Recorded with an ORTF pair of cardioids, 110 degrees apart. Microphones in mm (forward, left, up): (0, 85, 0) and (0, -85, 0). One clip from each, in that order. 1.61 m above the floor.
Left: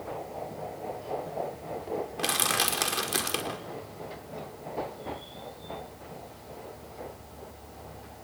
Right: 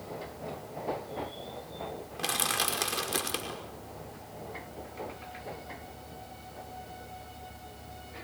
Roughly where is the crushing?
Ahead.